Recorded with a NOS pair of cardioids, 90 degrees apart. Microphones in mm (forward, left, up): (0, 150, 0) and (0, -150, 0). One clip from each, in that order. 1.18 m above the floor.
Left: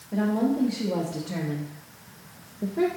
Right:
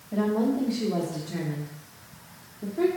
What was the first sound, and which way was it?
A woman speaking, straight ahead.